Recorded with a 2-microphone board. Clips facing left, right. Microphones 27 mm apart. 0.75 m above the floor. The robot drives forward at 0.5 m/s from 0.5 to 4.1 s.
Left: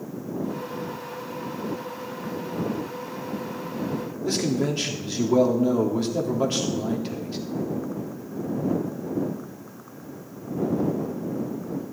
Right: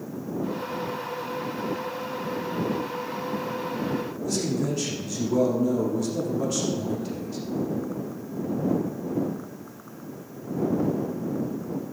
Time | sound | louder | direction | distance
4.2 | a man speaking | left 4 dB | 45° left (ahead or behind) | 1.8 m